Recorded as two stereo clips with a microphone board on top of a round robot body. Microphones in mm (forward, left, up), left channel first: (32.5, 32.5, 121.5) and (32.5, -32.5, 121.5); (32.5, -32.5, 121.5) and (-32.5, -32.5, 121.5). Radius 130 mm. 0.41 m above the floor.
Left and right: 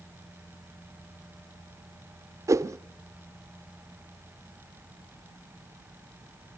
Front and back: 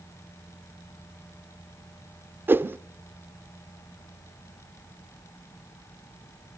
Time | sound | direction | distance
2.5 | a whoosh | 125° right | 0.5 m